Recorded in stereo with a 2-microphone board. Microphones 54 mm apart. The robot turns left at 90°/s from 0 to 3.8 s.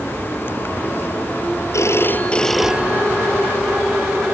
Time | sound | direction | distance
1.7 | a phone ringing | 75° left | ?